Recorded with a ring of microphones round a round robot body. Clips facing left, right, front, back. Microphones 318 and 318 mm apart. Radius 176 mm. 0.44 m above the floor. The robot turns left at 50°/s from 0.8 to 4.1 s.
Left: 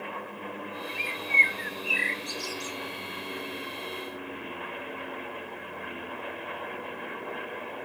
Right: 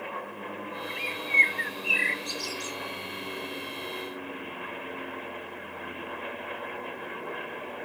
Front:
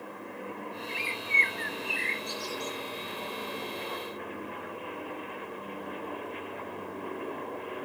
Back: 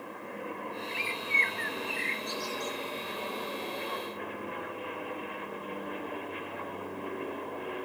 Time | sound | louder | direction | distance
0.9 | a bird | right 1 dB, even | 10° left | 0.9 m